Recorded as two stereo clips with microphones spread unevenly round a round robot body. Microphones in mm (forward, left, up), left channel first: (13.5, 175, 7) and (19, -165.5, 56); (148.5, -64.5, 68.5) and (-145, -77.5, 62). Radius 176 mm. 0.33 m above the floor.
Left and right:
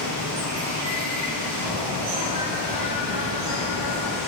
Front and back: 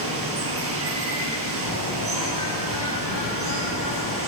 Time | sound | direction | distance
0.0 | running water | 135° right | 6.5 m
1.6 | a bird | 20° right | 8.5 m